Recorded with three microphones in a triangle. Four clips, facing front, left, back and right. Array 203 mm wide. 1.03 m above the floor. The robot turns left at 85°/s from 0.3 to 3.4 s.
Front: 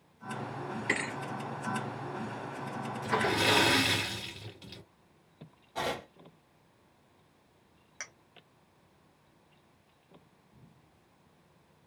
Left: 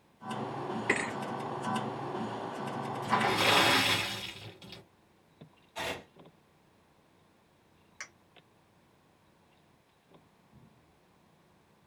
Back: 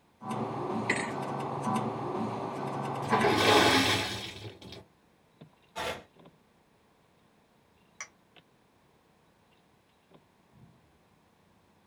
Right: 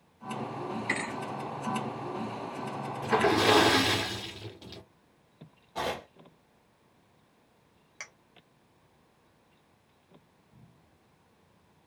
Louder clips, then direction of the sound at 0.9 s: Left 5 dB, back 2 dB; 100° left.